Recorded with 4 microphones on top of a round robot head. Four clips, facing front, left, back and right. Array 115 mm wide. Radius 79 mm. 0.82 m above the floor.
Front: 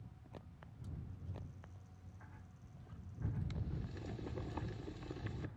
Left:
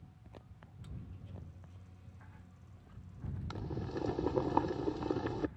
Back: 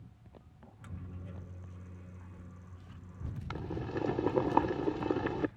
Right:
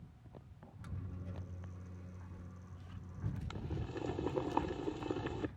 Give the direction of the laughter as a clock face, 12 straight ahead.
I don't hear laughter.